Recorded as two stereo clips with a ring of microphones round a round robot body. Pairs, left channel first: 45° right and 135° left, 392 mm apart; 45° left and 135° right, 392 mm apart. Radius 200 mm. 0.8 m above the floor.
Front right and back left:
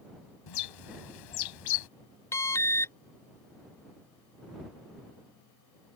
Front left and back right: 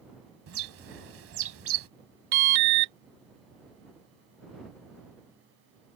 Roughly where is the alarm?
Behind right.